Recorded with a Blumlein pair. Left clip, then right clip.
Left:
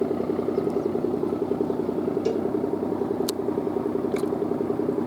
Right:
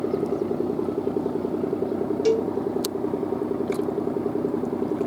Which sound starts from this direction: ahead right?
A cowbell, at 2.2 s.